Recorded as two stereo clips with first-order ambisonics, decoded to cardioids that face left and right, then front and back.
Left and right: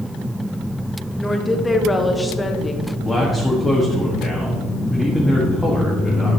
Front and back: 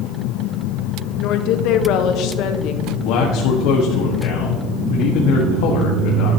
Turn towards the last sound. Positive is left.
turn(degrees=10)